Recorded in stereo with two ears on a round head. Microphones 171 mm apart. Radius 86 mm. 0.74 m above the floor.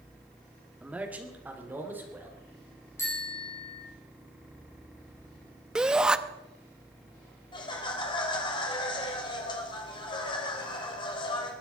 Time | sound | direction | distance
0.8 | a man speaking | 5° right (ahead or behind) | 1.9 m
3.0 | a bicycle bell | 15° left (ahead or behind) | 4.5 m
5.8 | a shout | 5° right (ahead or behind) | 0.6 m
7.5 | laughter | 25° left (ahead or behind) | 3 m